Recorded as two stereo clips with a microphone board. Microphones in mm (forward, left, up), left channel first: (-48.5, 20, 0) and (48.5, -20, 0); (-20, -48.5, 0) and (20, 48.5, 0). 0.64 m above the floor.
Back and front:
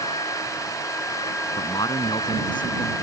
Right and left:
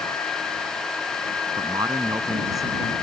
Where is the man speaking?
120° left.